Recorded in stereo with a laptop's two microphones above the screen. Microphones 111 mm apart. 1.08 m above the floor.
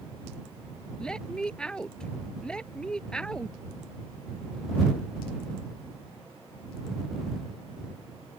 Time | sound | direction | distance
1.0 | a woman speaking | 5° left (ahead or behind) | ?